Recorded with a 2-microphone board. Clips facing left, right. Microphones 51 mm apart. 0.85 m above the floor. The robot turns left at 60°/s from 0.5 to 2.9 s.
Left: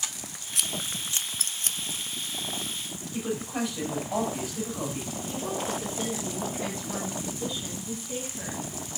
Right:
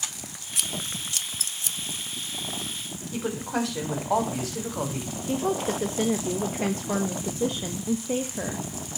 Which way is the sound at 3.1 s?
75° right (ahead or behind).